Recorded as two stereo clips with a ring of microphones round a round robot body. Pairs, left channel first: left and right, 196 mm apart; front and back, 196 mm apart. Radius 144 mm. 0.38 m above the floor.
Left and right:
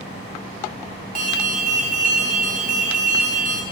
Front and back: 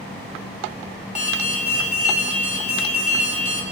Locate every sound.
1.1 s an alarm: 50° right, 1.4 m